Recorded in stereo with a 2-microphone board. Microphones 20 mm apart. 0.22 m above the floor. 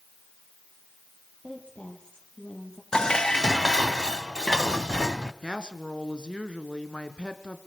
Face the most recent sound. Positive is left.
turn(degrees=60)  # may be behind; listen again after turning